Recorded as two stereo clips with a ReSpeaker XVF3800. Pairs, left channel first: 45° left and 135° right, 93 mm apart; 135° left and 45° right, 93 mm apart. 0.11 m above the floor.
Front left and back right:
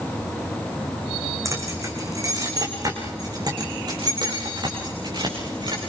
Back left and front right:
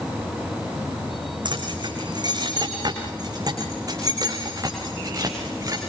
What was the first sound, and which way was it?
Keys jangling, 80° right.